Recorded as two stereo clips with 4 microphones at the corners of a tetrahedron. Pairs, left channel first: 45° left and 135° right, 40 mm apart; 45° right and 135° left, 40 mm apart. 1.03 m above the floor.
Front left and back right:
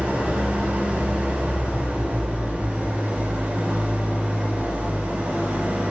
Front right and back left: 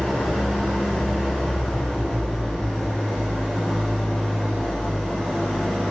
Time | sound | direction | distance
0.0 | an engine running | 125° right | 5.5 m